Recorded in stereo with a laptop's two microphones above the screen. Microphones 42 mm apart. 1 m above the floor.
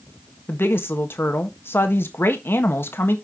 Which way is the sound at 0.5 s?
60° left (ahead or behind).